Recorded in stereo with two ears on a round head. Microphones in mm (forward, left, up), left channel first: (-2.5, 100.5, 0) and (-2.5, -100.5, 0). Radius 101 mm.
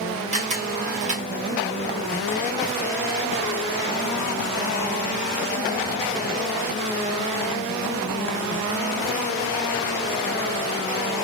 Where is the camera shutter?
30° right (ahead or behind), 1.1 m.